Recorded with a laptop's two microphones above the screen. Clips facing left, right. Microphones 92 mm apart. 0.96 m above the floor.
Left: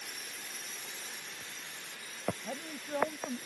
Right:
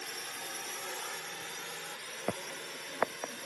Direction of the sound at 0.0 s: 60° right (ahead or behind).